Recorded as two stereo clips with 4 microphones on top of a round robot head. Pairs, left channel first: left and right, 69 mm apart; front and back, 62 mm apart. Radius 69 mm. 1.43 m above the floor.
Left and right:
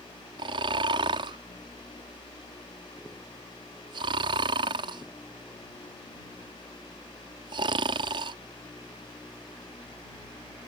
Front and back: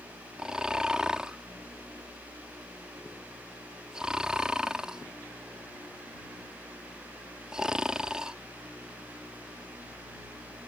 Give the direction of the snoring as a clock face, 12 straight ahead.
3 o'clock.